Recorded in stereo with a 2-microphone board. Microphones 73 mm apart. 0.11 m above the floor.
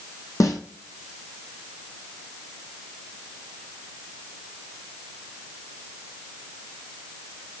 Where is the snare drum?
60° left (ahead or behind), 0.8 m.